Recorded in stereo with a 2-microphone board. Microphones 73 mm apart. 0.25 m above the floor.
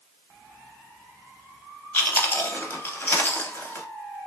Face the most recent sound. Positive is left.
turn(degrees=25)  # may be behind; listen again after turning